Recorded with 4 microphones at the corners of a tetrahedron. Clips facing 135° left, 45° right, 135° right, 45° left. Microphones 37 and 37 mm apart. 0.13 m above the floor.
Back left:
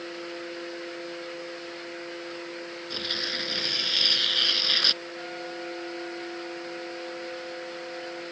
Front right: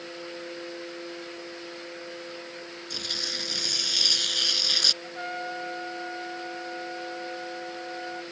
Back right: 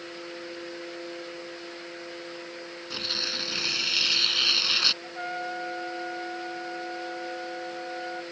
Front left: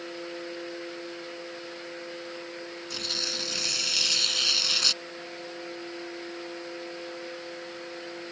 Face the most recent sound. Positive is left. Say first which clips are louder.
# front right 3 dB, back right 6 dB
turn(degrees=-105)